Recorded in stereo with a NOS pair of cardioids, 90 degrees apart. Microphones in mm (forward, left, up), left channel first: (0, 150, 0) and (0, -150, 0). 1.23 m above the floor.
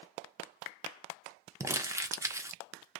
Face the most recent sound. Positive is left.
turn(degrees=-10)